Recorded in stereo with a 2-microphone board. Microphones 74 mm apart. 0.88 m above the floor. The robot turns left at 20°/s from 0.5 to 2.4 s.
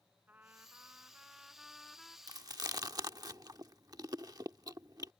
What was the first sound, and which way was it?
A trumpet, 155° right.